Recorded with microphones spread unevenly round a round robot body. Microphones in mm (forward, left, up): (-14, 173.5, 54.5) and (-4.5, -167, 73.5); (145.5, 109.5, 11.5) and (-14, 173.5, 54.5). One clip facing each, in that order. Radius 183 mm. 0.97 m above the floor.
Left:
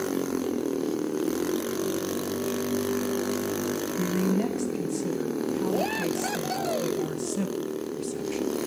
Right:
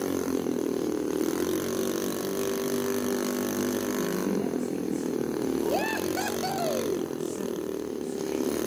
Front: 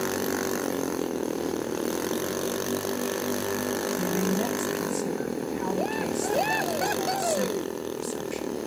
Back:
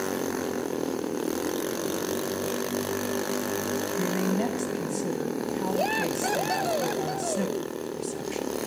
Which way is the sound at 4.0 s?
90° left.